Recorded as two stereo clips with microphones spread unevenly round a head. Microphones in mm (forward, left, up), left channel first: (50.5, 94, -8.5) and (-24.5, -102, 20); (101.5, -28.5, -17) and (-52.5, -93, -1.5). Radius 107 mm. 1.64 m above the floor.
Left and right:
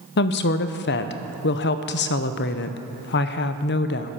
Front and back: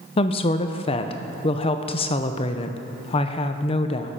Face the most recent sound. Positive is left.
turn(degrees=70)